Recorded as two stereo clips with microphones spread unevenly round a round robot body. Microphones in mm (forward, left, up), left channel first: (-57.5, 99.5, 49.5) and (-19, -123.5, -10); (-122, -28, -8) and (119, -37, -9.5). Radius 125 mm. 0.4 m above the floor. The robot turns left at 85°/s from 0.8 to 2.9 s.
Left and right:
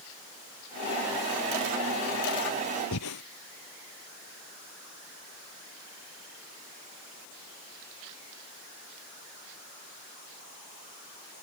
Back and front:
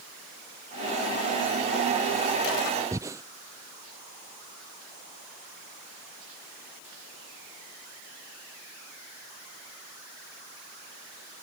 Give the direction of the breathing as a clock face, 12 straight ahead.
9 o'clock.